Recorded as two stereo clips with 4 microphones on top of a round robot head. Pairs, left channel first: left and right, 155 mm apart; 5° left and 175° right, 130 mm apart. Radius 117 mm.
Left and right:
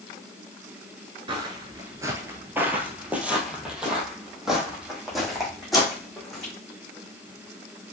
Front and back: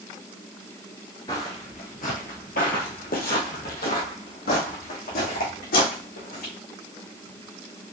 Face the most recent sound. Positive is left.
turn(degrees=0)